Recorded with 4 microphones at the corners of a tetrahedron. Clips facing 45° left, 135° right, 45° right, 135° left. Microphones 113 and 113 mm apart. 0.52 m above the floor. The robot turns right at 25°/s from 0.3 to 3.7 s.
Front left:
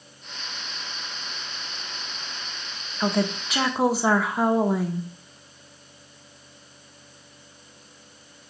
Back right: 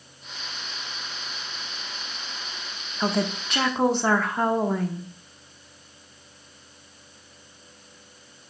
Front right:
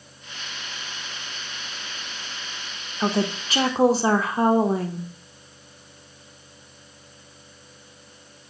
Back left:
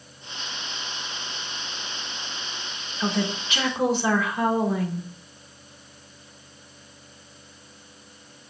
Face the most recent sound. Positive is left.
turn(degrees=-35)